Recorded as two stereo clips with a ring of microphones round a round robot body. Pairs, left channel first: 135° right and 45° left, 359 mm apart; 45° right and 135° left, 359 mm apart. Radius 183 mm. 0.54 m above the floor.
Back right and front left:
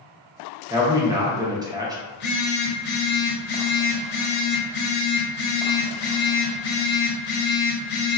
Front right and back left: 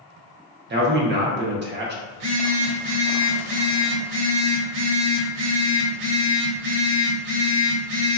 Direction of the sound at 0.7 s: 115° left.